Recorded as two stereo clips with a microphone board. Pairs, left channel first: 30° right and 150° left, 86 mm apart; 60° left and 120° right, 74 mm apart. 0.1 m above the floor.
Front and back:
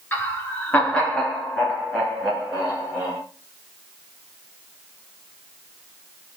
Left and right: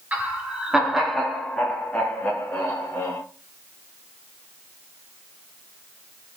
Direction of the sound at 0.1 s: 70° right.